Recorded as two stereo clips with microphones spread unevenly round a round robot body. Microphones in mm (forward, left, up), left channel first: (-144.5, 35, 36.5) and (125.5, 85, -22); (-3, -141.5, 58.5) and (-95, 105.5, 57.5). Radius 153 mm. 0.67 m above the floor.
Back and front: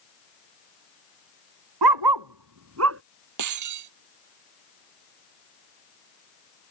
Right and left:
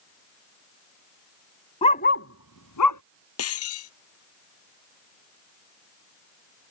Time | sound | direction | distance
1.8 | a dog barking | 5° left | ?
3.4 | breaking glass | 25° right | ?